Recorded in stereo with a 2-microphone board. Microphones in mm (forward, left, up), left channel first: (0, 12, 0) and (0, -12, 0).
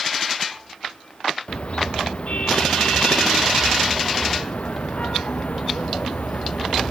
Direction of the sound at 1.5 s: 55° left (ahead or behind).